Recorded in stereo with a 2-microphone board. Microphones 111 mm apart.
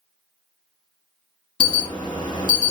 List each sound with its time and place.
1.6 s an alarm: 40° left (ahead or behind), 1.2 m